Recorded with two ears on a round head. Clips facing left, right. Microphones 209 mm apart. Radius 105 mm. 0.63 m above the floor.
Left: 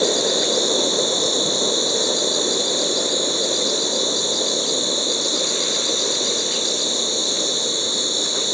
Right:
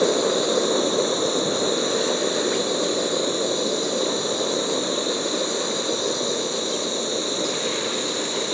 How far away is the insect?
About 0.8 m.